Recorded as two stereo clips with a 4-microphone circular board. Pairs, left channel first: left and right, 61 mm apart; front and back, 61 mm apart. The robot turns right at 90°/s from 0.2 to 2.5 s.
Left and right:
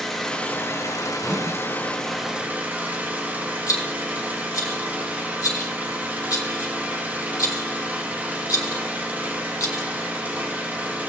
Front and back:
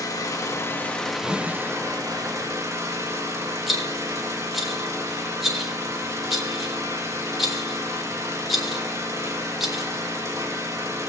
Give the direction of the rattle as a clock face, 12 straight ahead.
9 o'clock.